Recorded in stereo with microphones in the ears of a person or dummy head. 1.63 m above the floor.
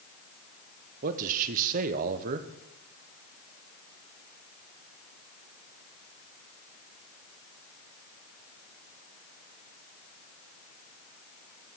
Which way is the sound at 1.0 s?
50° right (ahead or behind).